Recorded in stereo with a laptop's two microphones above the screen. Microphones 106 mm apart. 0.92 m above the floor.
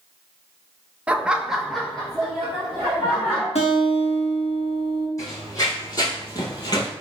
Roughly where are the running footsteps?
Left.